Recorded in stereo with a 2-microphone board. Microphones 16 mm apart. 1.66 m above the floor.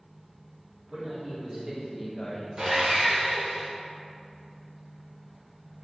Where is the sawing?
50° right (ahead or behind), 0.6 m.